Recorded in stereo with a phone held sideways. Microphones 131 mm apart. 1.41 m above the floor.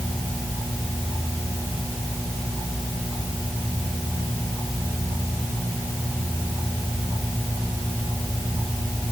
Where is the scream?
I don't hear a scream.